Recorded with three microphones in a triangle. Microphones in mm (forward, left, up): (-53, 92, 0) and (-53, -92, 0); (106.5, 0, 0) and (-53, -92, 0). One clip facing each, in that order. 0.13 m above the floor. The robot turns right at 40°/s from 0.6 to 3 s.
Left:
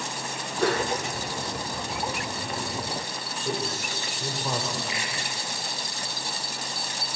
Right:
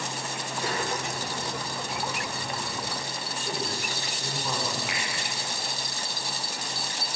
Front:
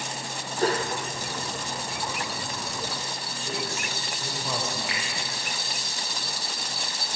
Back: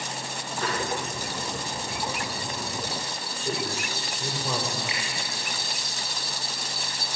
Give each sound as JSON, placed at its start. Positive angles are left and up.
{"t": 0.6, "sound": "a whoosh", "azimuth_deg": 80, "distance_m": 1.8}
{"t": 3.5, "sound": "a man speaking", "azimuth_deg": 155, "distance_m": 6.0}
{"t": 4.9, "sound": "a finger snap", "azimuth_deg": -80, "distance_m": 6.5}